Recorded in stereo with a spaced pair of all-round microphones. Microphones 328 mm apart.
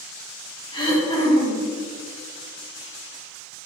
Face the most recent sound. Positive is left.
turn(degrees=15)  # may be behind; listen again after turning